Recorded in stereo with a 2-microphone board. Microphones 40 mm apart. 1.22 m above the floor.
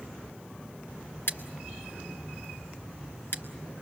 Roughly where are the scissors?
Left.